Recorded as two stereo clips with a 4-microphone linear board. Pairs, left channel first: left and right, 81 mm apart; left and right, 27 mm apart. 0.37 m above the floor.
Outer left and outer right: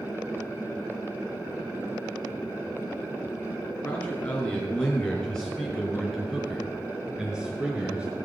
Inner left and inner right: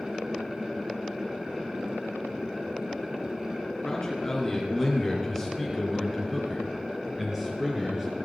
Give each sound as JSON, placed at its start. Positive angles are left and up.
{"t": 3.8, "sound": "a man speaking", "side_deg": 20, "distance_m": 5.0}